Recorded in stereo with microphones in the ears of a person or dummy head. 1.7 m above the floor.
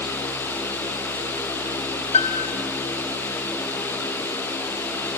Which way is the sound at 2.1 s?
35° left (ahead or behind).